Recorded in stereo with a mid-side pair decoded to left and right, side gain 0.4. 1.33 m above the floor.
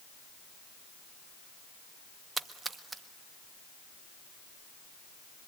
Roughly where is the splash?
Ahead right.